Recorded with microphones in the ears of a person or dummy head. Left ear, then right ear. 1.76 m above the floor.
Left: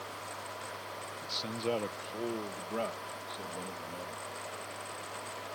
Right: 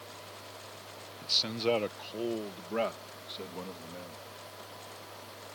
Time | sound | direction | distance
1.2 | a man speaking | 15° right (ahead or behind) | ?